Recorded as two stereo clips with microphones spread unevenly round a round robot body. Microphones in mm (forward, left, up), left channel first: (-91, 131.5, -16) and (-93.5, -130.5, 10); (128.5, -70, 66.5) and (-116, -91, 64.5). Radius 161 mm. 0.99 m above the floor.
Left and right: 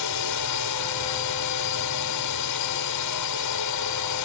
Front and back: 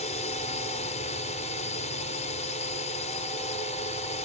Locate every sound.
0.0 s a drone: 70° left